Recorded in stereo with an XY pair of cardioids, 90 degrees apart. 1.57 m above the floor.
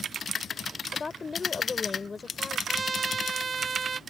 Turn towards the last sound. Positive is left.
turn(degrees=-35)